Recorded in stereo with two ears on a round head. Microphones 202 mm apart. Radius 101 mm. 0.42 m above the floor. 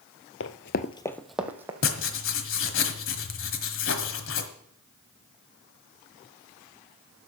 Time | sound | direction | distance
0.4 | running footsteps | 60° left (ahead or behind) | 0.7 m
1.8 | writing | 60° left (ahead or behind) | 1.4 m